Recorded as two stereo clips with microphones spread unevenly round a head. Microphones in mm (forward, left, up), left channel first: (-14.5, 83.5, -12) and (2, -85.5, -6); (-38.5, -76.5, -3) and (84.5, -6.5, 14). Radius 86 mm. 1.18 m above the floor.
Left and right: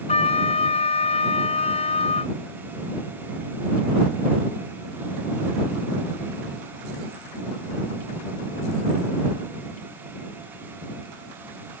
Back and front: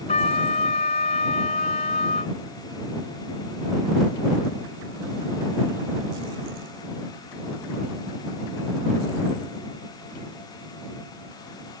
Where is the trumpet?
150° left.